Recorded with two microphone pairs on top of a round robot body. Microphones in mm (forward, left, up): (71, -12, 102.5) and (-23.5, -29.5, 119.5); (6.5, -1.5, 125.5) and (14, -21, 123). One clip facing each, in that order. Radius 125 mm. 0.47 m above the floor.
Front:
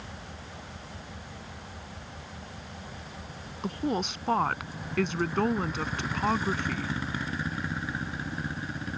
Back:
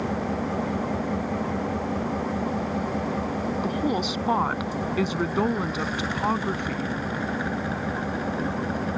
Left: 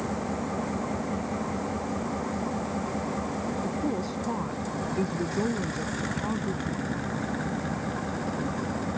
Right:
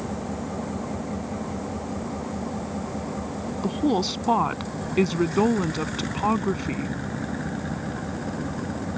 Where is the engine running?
175° right.